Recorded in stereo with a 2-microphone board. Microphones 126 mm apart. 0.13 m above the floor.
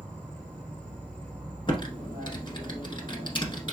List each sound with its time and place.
0.0 s an insect: 10° left (ahead or behind), 1.1 m
1.7 s typing on a keyboard: 40° left (ahead or behind), 1.0 m